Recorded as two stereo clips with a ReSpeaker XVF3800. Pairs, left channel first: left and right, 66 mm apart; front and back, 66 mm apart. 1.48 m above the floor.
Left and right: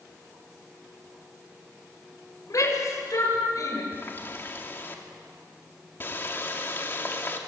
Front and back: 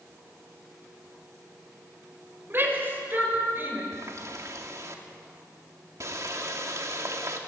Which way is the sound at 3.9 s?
145° left.